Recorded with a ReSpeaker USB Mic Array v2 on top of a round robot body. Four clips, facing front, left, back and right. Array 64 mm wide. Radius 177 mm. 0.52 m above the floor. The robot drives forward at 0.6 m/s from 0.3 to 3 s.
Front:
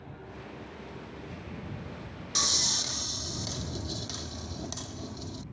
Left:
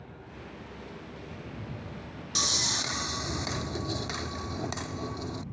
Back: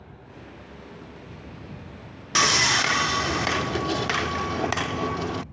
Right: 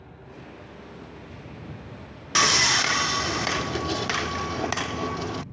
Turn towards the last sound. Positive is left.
turn(degrees=-150)